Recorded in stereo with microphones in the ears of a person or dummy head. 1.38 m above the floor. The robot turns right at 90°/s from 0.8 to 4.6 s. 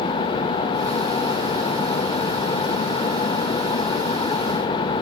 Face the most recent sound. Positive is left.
No sound to turn to.